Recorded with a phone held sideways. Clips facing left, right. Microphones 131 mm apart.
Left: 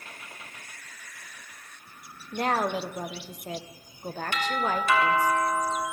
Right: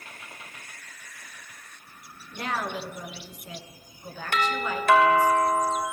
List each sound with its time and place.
2.3 s a woman speaking: 45° left (ahead or behind), 0.9 m
4.3 s a doorbell: 55° right (ahead or behind), 1.5 m